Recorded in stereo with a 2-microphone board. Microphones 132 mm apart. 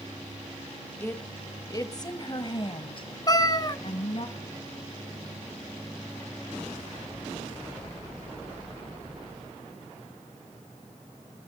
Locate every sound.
1.0 s a woman speaking: 15° left (ahead or behind), 1.3 m; by 4.3 s 45° left (ahead or behind), 2 m
3.3 s a cat meowing: 30° left (ahead or behind), 0.8 m